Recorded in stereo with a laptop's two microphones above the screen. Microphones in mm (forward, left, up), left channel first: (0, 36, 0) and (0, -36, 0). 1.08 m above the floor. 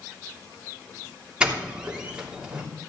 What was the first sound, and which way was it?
A doorbell, 10° right (ahead or behind).